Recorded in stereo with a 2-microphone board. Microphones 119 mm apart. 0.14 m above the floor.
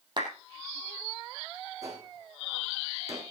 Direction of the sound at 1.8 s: 30° right (ahead or behind).